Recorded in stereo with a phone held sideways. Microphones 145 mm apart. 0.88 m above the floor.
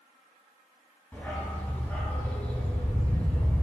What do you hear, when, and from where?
1.1 s a dog barking: 10° left (ahead or behind), 1.9 m